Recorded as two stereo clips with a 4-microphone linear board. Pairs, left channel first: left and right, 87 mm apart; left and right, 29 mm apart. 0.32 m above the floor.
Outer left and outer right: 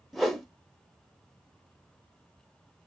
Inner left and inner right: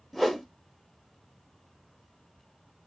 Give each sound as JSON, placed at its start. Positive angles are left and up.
{"t": 0.1, "sound": "a whoosh", "side_deg": 0, "distance_m": 0.6}